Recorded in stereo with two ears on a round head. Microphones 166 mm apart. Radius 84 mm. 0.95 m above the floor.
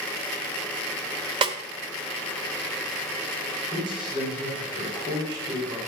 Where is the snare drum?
25° right (ahead or behind), 0.9 m.